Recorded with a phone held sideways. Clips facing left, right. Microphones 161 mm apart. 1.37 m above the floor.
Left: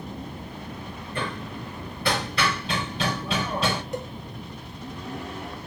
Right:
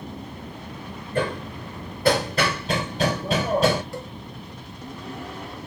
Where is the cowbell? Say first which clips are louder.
Left 3 dB; 20° left (ahead or behind), 1.0 m.